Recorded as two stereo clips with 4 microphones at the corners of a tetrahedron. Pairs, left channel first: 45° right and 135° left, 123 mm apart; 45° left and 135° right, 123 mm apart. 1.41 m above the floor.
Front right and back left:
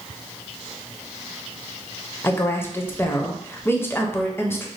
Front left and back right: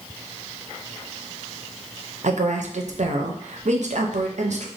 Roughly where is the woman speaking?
Behind right.